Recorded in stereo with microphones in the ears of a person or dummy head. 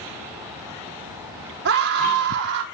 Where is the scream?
55° right (ahead or behind), 1.1 m.